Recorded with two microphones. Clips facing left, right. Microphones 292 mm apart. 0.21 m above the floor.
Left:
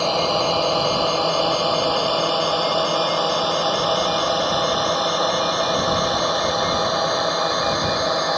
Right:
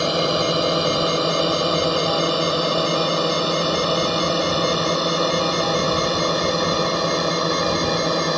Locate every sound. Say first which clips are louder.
0.0 s a drone: right 1 dB; 20° right (ahead or behind); by 8.4 s 35° right (ahead or behind)